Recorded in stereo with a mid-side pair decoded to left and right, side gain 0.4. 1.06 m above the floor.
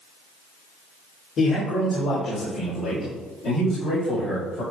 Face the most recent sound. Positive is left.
turn(degrees=70)